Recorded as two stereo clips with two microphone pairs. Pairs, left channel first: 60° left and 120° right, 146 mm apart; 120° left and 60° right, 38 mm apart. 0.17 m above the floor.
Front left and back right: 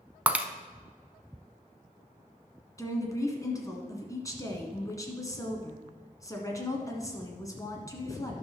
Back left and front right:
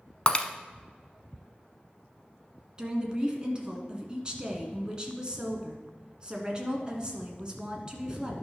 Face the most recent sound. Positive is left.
turn(degrees=5)